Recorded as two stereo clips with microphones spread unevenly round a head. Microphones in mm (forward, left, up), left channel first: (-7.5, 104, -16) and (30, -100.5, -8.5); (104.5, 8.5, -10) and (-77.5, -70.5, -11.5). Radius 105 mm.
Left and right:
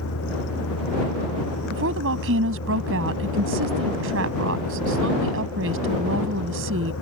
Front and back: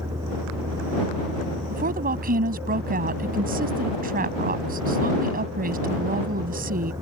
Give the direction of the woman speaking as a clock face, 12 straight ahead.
4 o'clock.